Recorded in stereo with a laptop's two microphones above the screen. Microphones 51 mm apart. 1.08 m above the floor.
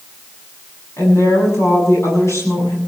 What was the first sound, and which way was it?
A woman speaking, 65° left (ahead or behind).